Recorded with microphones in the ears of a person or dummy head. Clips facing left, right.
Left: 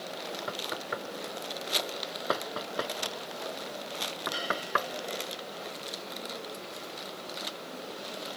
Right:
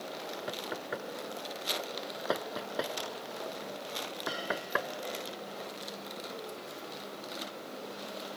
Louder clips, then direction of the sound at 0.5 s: Even; centre (ahead or behind).